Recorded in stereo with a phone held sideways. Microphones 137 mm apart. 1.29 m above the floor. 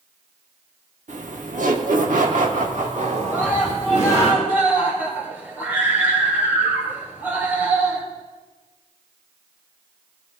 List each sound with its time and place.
1.1 s laughter: 65° right (ahead or behind), 1.3 m; by 4.3 s 50° right (ahead or behind), 2 m
3.3 s a scream: 15° right (ahead or behind), 3 m